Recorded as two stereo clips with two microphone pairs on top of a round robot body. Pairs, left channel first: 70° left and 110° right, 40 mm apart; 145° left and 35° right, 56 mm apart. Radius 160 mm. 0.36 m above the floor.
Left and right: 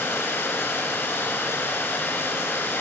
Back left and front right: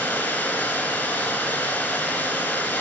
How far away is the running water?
About 2.5 m.